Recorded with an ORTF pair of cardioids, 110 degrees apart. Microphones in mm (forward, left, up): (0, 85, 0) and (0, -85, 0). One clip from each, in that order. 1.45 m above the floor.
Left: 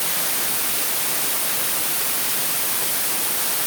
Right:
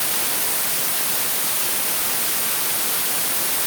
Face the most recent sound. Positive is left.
No sound to turn to.